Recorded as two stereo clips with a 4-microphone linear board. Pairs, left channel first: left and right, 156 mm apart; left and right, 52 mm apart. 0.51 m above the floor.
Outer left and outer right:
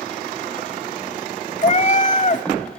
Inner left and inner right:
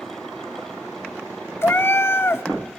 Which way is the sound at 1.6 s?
55° left (ahead or behind).